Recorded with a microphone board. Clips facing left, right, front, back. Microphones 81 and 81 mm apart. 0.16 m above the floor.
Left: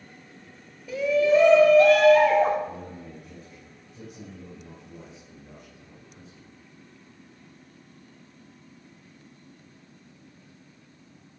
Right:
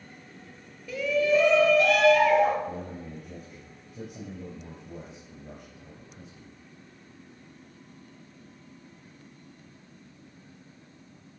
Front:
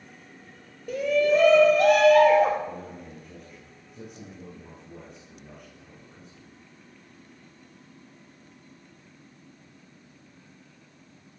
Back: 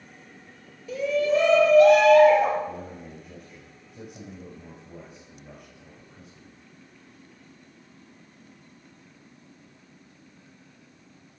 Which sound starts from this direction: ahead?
A shout, at 0.9 s.